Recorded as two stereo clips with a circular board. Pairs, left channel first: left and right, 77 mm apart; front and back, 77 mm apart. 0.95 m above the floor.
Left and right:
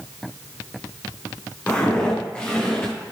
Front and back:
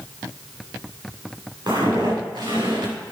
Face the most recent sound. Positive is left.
turn(degrees=175)